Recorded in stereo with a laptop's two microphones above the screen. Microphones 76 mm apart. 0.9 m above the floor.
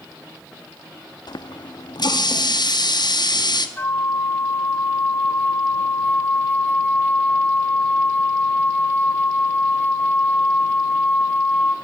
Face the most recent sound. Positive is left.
turn(degrees=25)  # may be behind; listen again after turning